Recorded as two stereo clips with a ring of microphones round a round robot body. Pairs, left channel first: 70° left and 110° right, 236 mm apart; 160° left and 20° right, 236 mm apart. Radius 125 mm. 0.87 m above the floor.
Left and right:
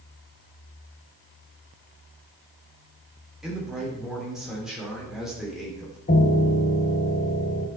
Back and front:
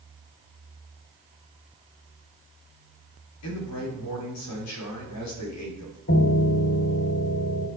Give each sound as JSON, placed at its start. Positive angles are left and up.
{"t": 3.4, "sound": "a man speaking", "azimuth_deg": 160, "distance_m": 3.5}
{"t": 6.1, "sound": "a piano", "azimuth_deg": 120, "distance_m": 0.9}